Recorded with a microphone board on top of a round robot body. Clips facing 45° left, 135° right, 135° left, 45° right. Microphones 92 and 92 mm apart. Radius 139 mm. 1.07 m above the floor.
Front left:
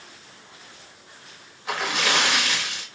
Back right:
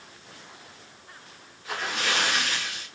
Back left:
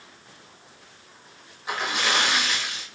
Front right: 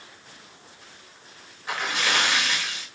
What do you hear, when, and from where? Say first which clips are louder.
1.7 s a splash: front left 4 dB, back left 1 dB; 60° left, 1.2 m